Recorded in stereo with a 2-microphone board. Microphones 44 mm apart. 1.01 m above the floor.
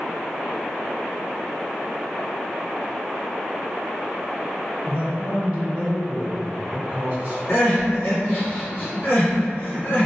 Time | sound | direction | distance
4.8 | a man speaking | 35° right (ahead or behind) | 1.0 m
7.5 | crying | 55° left (ahead or behind) | 1.2 m